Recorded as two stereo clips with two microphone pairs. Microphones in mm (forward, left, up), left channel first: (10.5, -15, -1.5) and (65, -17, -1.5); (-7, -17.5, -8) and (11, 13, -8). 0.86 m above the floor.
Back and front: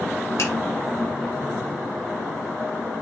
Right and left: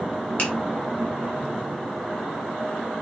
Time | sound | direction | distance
0.4 | a finger snap | 165° right | 3 m